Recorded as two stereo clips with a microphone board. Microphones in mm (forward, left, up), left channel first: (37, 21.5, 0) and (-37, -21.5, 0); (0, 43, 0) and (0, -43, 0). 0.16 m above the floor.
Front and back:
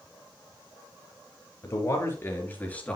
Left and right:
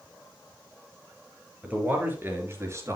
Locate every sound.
1.6 s a man speaking: 20° right, 3.5 m; by 3.0 s 45° right, 3 m